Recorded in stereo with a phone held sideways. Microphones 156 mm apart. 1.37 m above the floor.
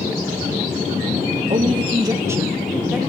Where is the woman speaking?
45° right (ahead or behind), 1.0 m; by 3.0 s 5° right (ahead or behind), 1.7 m.